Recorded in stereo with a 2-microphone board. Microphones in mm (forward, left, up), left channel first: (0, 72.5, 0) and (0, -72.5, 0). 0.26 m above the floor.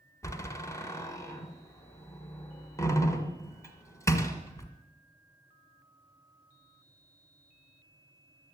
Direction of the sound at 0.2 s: 20° left (ahead or behind).